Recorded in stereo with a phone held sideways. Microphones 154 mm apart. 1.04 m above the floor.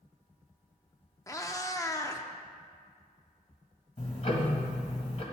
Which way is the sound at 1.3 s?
20° left (ahead or behind).